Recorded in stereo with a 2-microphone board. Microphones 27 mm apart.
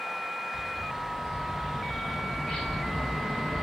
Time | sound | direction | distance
0.5 | a bird | 40° left (ahead or behind) | 3 m